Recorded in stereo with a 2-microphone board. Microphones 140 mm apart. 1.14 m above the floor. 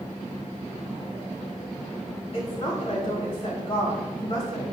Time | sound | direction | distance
2.3 | a woman speaking | 45° left (ahead or behind) | 3.5 m